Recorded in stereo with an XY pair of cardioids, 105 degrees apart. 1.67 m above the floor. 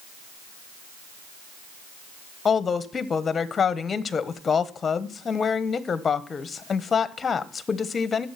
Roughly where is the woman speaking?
Ahead left.